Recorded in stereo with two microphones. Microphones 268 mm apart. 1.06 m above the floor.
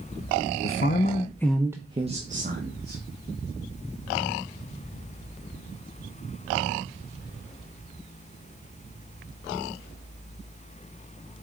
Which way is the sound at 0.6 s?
55° left (ahead or behind).